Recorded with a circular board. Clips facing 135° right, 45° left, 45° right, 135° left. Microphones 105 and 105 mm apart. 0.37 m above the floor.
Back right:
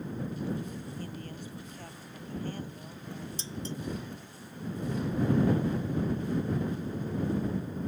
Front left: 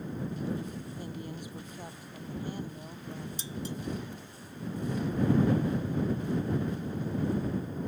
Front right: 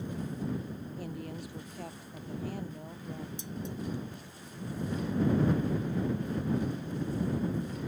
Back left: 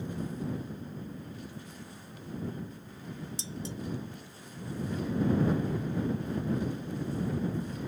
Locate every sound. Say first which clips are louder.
1.0 s a woman speaking: front left 1 dB, front right 3 dB; 30° right
3.4 s dishes clattering: front left 1 dB, front right 1 dB; 125° left